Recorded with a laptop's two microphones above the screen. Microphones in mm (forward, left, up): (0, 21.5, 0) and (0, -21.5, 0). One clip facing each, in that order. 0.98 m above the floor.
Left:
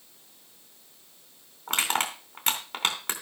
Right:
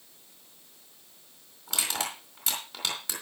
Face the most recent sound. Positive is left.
turn(degrees=45)  # may be behind; listen again after turning